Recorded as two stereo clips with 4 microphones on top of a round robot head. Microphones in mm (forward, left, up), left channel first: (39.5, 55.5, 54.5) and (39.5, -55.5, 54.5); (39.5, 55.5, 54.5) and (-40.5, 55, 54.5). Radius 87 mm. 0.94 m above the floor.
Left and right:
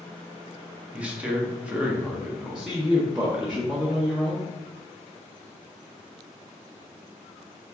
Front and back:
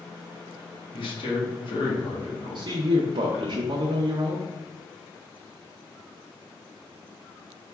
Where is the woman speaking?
175° right, 0.6 m.